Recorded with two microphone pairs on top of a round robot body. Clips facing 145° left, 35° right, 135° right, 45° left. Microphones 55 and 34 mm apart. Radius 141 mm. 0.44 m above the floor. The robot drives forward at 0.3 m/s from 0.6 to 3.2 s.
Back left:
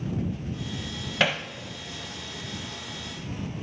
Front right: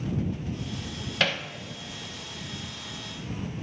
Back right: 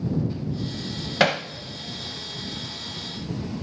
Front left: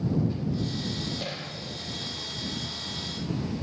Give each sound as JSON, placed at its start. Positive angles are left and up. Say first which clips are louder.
{"t": 1.2, "sound": "hammering", "louder": "back left 2 dB, back right 14 dB", "azimuth_deg": -140, "distance_m": 0.9}